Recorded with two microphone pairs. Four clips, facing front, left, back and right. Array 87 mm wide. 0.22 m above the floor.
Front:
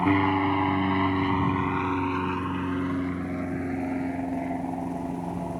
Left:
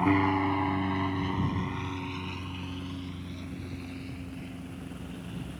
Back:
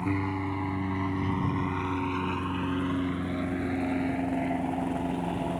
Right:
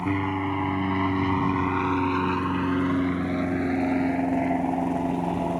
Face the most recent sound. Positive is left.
turn(degrees=-95)